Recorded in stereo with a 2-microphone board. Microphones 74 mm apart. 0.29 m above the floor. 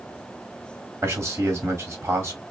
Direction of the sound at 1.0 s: 40° right (ahead or behind).